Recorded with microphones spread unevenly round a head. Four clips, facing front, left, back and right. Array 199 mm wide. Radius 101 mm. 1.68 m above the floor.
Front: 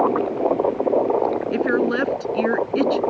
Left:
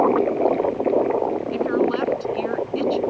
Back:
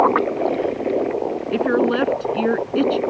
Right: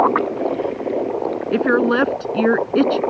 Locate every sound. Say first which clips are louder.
1.5 s a woman speaking: right 7 dB, back 6 dB; 100° right